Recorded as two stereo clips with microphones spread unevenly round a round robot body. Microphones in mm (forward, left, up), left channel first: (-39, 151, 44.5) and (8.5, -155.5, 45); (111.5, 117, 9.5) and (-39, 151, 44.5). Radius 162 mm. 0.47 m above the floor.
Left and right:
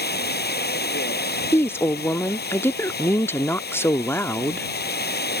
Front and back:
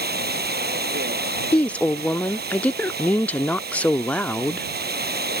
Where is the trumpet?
I don't hear a trumpet.